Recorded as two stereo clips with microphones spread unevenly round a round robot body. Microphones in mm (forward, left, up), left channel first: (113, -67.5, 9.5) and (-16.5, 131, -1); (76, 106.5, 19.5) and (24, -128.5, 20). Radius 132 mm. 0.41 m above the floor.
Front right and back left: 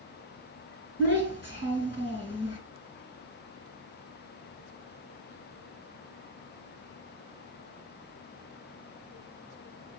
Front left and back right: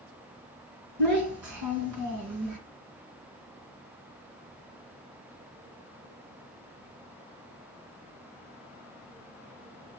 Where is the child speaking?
115° right, 2.5 m.